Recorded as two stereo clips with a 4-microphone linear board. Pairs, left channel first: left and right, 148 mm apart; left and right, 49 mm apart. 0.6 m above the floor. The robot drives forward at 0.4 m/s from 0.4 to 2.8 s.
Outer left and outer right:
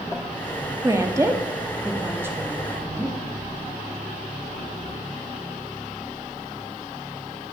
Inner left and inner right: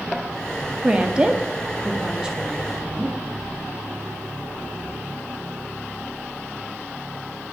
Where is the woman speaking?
20° right (ahead or behind), 0.6 m; by 3.2 s 10° right (ahead or behind), 1.0 m.